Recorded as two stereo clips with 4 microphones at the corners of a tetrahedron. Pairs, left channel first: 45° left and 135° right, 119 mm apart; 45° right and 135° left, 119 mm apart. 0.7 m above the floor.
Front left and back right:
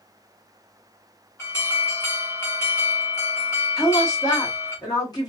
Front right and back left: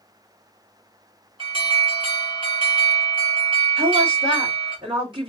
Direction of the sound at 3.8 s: 95° left.